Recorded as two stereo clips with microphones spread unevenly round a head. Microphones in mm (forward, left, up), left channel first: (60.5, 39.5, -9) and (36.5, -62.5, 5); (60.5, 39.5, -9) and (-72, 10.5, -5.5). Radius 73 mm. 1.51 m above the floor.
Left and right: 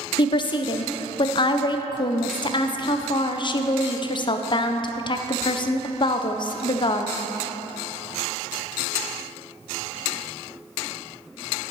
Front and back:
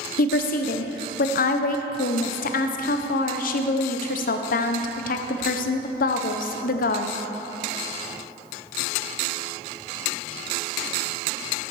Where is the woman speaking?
35° left, 0.6 m.